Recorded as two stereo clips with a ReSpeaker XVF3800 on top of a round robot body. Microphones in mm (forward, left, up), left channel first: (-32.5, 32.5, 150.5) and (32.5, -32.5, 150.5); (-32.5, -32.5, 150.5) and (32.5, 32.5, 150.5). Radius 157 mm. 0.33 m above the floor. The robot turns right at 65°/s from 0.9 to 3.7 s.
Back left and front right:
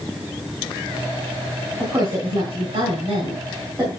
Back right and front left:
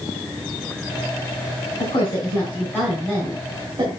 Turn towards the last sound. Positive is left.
turn(degrees=15)